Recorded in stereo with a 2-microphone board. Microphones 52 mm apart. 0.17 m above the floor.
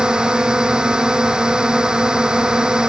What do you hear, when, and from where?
0.0 s a drone: 15° right (ahead or behind)